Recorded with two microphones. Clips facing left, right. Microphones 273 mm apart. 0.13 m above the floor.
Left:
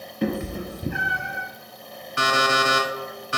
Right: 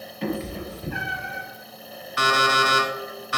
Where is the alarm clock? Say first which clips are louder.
Even; 30° left (ahead or behind), 0.9 m.